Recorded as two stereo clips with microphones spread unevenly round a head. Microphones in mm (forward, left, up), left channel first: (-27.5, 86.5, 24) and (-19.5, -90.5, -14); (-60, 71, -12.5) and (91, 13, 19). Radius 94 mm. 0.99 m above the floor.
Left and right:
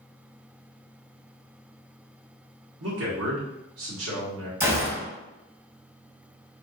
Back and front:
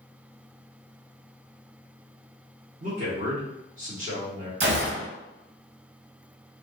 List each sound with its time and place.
2.8 s a man speaking: 75° right, 2 m
4.6 s a gunshot: 20° right, 1.2 m